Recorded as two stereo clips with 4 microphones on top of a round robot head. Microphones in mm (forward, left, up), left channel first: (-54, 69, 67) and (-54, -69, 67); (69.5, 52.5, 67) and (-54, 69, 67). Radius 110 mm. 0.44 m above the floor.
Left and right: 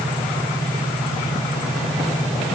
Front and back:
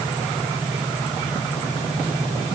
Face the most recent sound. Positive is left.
No sound to turn to.